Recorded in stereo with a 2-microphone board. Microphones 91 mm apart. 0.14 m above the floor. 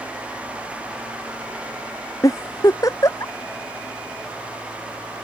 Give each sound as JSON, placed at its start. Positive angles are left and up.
{"t": 2.2, "sound": "a giggle", "side_deg": 40}